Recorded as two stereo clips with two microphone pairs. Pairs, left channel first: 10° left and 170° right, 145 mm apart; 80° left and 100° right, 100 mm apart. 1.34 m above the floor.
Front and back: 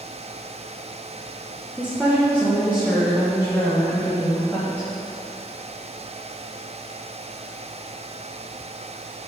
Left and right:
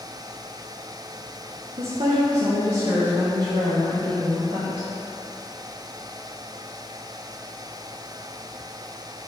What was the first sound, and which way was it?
A woman speaking, 90° right.